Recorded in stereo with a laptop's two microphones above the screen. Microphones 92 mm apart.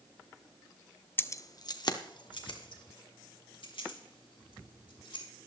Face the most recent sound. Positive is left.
turn(degrees=70)  # may be behind; listen again after turning